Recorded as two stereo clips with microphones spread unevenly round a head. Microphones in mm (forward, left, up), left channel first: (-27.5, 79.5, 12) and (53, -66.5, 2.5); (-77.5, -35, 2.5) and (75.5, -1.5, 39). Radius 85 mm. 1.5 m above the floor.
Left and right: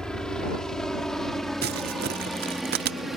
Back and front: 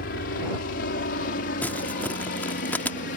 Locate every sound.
0.0 s a helicopter: 155° right; by 3.2 s 150° right
1.6 s crumpling: 80° right